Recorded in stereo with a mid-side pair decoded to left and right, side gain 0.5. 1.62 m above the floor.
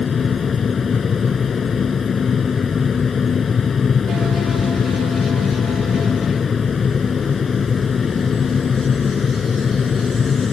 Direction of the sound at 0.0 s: 45° left.